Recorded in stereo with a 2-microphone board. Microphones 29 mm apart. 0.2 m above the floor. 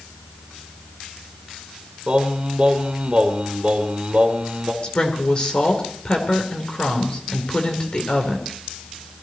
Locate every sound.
2.1 s singing: 35° right (ahead or behind), 1.4 m
4.8 s a woman speaking: 40° left (ahead or behind), 3 m